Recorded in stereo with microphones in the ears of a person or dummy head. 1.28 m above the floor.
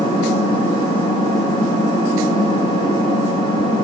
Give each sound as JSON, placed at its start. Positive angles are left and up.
{"t": 0.0, "sound": "an engine running", "side_deg": 30, "distance_m": 8.5}